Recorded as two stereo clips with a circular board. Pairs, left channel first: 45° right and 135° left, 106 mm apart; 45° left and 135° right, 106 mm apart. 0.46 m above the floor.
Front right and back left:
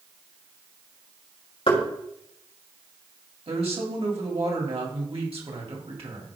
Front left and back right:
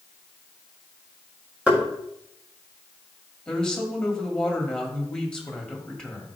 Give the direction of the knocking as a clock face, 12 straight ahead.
2 o'clock.